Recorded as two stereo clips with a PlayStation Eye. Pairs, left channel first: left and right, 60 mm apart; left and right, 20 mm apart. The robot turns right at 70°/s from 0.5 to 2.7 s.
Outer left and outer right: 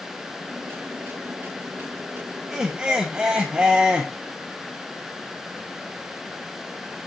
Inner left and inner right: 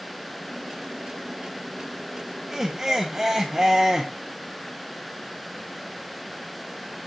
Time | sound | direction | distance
2.5 | laughter | 5° right (ahead or behind) | 0.8 m